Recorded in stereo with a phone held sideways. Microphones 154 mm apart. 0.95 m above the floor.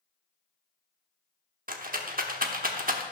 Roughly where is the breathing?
I don't hear breathing.